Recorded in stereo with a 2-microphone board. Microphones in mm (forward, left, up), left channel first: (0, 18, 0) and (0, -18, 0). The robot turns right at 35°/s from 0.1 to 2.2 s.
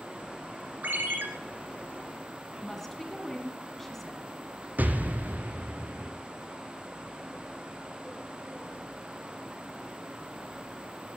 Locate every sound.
0.8 s a ringtone: 60° right (ahead or behind), 2 m; by 1.3 s 65° right (ahead or behind), 2 m
2.6 s a woman speaking: 10° left (ahead or behind), 1.7 m
4.8 s an explosion: 55° right (ahead or behind), 1.2 m